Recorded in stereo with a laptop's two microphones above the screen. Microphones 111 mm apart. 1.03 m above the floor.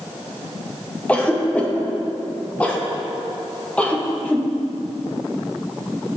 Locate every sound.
1.1 s a cough: 10° left (ahead or behind), 0.9 m